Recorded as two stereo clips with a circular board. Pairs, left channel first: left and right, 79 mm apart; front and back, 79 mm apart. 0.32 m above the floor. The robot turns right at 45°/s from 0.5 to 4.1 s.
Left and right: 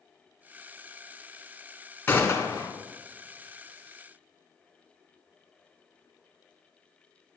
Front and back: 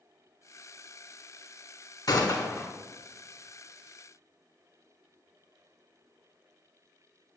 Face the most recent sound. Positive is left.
turn(degrees=115)